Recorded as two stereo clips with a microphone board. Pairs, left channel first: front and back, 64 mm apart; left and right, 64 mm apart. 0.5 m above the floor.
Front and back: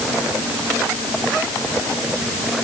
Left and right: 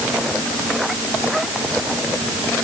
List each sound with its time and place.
Only background noise.